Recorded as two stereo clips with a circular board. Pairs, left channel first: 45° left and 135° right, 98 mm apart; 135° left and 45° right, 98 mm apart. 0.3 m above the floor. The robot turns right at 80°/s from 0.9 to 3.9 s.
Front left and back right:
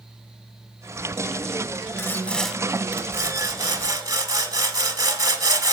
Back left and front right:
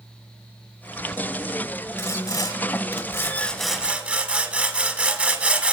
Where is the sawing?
90° left, 0.9 m; by 5.7 s 115° right, 0.9 m.